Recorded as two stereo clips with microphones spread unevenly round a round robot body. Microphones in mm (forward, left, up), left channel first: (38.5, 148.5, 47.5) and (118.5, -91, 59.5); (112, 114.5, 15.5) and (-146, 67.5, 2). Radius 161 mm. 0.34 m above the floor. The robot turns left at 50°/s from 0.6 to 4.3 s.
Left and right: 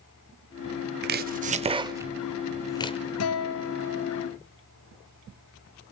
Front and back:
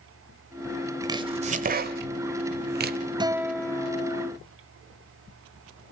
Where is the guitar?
120° left, 1.1 m; by 4.3 s 65° left, 1.1 m.